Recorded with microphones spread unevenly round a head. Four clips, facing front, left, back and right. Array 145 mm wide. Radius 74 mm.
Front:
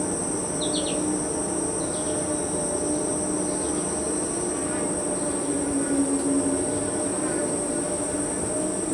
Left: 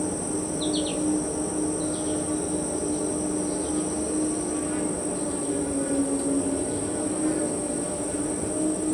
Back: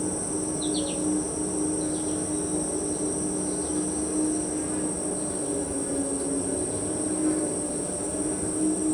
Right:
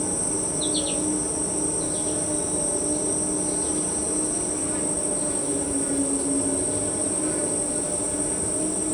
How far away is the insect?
About 0.7 m.